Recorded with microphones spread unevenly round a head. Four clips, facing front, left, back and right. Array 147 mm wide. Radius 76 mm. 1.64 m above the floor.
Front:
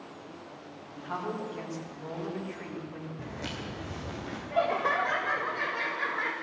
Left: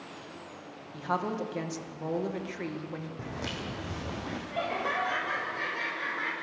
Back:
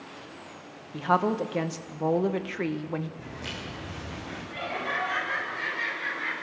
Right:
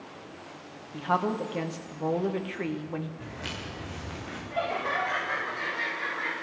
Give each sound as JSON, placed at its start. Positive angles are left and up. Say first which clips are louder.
{"t": 0.9, "sound": "a woman speaking", "louder": "right 4 dB, back 11 dB", "azimuth_deg": -165, "distance_m": 1.8}
{"t": 3.2, "sound": "footsteps", "louder": "left 2 dB, even", "azimuth_deg": 65, "distance_m": 5.5}
{"t": 4.5, "sound": "laughter", "louder": "right 3 dB, front 6 dB", "azimuth_deg": 5, "distance_m": 7.5}